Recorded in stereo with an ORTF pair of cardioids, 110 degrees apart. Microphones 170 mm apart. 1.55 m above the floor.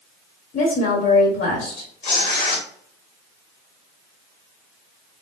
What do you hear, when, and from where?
0.5 s a woman speaking: 65° left, 1.1 m
2.0 s tearing paper: 65° left, 1.1 m